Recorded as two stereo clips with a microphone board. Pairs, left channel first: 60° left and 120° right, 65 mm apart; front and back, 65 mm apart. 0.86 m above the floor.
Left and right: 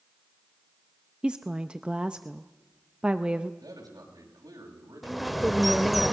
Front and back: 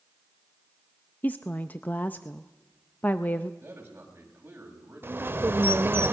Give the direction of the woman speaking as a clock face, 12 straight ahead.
2 o'clock.